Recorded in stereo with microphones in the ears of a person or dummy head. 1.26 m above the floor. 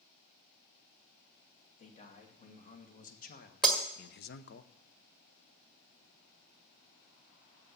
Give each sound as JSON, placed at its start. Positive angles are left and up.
{"t": 1.8, "sound": "a man speaking", "side_deg": 30, "distance_m": 2.5}
{"t": 3.6, "sound": "breaking glass", "side_deg": 5, "distance_m": 1.7}